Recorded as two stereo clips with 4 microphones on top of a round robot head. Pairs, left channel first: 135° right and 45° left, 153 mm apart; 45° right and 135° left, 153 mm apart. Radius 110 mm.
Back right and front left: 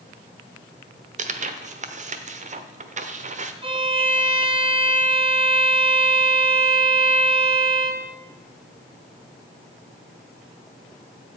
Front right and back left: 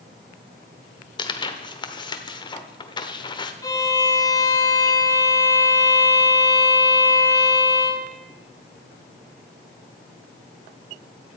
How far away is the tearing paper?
About 1.1 m.